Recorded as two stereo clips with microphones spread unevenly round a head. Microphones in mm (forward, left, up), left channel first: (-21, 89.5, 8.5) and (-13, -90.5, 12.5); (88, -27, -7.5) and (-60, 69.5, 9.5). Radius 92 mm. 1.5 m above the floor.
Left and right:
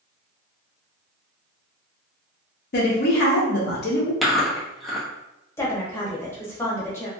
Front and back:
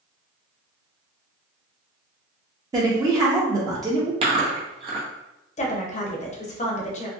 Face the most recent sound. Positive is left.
turn(degrees=15)